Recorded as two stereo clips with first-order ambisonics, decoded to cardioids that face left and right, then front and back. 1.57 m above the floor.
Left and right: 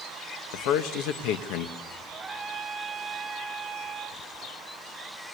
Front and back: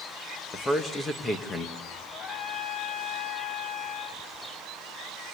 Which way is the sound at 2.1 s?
30° right.